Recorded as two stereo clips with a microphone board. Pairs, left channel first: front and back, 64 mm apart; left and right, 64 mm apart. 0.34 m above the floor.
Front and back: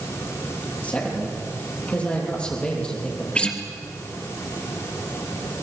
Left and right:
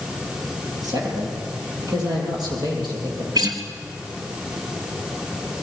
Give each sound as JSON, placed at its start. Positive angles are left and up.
{"t": 0.8, "sound": "a man speaking", "azimuth_deg": -70, "distance_m": 7.0}
{"t": 3.4, "sound": "a guitar", "azimuth_deg": -75, "distance_m": 2.5}